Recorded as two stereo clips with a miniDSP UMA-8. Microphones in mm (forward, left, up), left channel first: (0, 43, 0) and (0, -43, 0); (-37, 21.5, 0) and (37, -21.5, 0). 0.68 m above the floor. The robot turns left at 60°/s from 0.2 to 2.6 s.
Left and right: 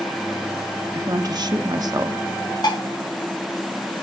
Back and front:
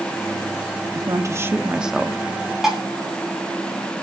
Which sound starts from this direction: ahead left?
Dishes clattering, at 2.6 s.